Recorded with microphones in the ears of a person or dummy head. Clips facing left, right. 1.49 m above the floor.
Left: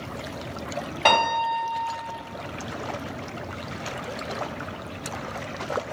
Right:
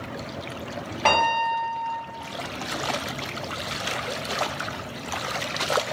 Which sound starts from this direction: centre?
A piano, at 1.1 s.